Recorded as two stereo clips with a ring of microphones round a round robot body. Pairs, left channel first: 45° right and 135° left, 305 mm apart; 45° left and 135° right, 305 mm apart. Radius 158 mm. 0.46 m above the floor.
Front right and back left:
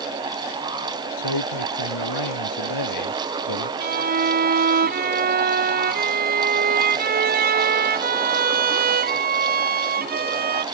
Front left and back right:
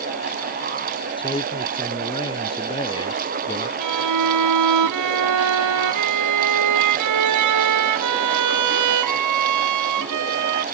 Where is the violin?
165° right.